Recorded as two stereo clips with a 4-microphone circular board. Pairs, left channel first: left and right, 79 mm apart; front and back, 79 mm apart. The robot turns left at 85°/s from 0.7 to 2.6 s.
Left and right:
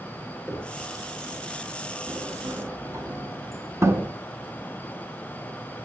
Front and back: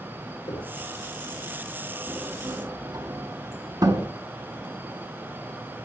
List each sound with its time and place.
0.5 s knocking: 5° left, 7 m; by 0.8 s 5° right, 7 m
2.1 s a sliding door: 100° right, 3 m; by 4.1 s 145° right, 3 m